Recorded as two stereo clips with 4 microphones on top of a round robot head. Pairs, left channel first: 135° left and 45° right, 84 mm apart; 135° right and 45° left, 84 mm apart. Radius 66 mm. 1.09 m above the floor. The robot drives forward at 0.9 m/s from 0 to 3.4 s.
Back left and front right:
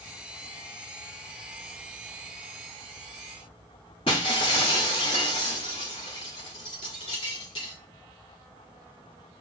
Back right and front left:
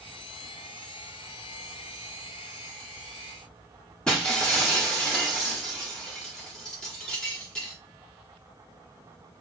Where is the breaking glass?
145° left, 0.8 m.